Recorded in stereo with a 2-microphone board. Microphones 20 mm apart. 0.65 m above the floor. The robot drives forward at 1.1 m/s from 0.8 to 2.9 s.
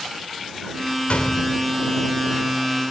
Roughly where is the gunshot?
Left.